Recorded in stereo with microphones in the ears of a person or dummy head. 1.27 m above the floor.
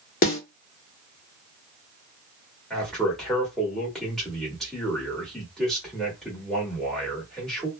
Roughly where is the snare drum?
Left.